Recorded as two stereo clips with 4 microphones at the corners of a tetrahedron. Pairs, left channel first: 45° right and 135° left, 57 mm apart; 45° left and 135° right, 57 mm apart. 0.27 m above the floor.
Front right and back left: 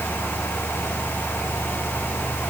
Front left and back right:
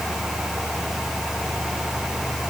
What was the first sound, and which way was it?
Only background noise.